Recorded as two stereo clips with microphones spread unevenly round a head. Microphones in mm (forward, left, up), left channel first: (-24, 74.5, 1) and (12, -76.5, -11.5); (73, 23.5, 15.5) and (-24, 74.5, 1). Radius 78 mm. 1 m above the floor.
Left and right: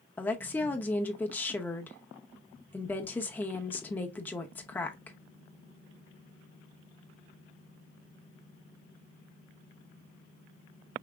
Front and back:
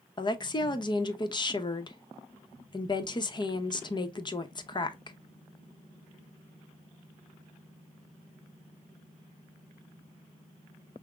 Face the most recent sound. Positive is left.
turn(degrees=20)